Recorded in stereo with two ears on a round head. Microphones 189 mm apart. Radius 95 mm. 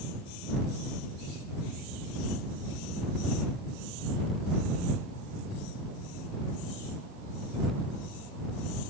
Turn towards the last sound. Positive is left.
No sound to turn to.